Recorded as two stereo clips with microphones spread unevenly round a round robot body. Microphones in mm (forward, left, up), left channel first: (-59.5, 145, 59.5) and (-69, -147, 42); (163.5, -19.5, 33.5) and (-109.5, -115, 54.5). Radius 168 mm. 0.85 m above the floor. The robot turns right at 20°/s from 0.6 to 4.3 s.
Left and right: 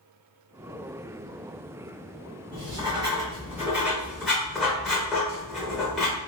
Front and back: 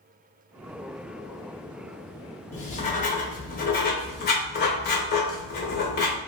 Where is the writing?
30° right, 0.5 m; by 6.2 s 5° left, 0.5 m.